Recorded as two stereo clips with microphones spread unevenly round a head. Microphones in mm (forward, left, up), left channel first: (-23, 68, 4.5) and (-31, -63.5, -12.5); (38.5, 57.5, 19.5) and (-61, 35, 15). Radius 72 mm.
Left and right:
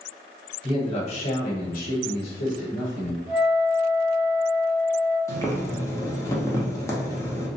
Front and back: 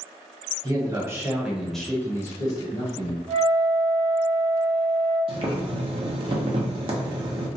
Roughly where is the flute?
Left.